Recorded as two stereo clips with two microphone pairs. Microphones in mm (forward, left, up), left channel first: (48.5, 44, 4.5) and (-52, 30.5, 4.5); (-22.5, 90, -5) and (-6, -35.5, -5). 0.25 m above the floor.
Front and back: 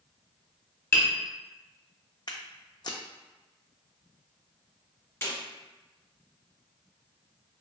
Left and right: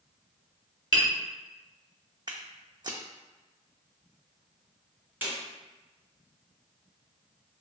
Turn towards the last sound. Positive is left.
turn(degrees=-25)